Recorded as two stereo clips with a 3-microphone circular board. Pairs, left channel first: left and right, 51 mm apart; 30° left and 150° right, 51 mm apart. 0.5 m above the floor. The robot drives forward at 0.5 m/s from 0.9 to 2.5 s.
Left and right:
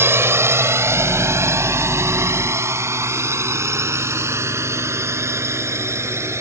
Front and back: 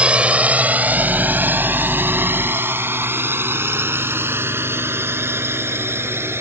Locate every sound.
0.0 s a drone: 90° right; by 6.4 s 115° right